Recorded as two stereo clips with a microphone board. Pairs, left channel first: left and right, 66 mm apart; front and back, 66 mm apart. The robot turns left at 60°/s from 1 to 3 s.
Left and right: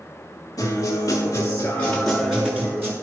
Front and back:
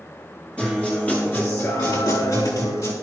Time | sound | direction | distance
0.6 | a guitar | 70° left | 6 m